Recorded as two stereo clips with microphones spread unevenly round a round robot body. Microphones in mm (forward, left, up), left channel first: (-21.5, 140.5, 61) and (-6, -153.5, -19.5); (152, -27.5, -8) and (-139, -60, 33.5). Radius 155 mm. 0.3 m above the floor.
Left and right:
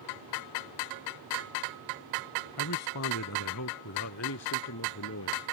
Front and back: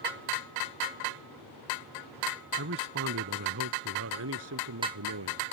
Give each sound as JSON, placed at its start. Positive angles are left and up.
{"t": 2.6, "sound": "a man speaking", "azimuth_deg": 135}